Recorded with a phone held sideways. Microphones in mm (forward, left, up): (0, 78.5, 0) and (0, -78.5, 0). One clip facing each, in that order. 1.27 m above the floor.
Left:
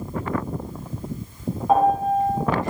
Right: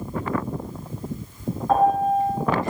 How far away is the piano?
About 3 m.